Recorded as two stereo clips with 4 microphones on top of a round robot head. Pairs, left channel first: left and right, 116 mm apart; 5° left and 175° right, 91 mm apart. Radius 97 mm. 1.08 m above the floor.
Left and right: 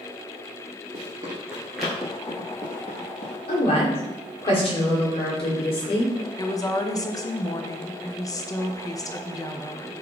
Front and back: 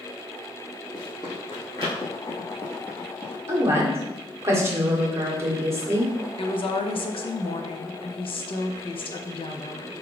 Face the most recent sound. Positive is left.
turn(degrees=30)